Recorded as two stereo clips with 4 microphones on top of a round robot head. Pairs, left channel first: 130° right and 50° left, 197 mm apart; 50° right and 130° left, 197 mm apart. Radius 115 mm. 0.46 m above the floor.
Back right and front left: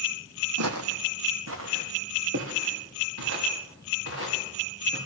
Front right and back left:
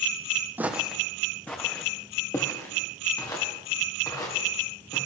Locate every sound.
0.6 s footsteps: 45° left, 1.0 m; by 5.0 s 20° left, 5.5 m